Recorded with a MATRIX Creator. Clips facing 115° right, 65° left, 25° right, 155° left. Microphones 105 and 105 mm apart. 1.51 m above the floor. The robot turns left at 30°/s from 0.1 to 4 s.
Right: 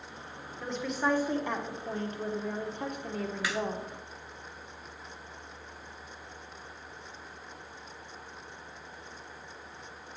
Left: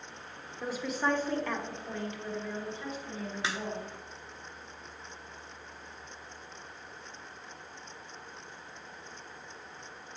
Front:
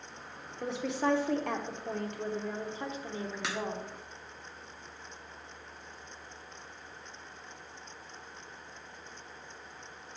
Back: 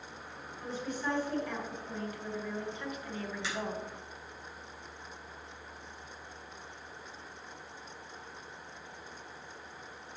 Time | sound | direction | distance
0.6 | a woman speaking | 10° right | 1.2 m
3.4 | a crack | 5° left | 1.2 m